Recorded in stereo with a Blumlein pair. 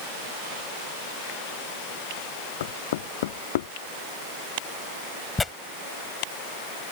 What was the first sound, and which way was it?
Knocking, 55° left.